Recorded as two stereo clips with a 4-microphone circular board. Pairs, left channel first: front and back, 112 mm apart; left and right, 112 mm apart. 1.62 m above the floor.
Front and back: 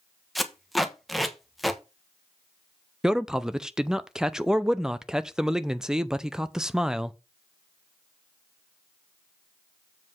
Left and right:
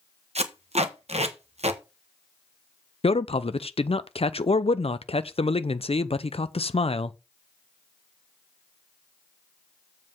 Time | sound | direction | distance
0.3 | tape being pulled | 90° right | 1.2 m
3.0 | a man speaking | 95° left | 0.5 m